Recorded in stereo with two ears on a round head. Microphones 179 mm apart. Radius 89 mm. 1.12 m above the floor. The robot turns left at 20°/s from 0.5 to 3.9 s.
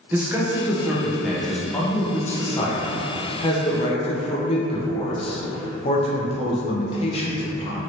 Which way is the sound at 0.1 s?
165° right.